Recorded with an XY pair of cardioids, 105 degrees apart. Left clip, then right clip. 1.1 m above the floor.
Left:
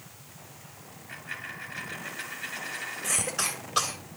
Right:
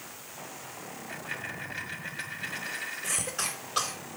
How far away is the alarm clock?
No alarm clock in this recording.